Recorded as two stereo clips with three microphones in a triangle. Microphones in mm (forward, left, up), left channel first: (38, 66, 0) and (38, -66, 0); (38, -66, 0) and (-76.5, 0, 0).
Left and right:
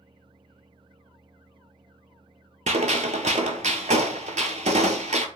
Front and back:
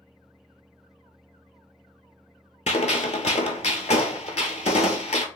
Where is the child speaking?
I don't hear a child speaking.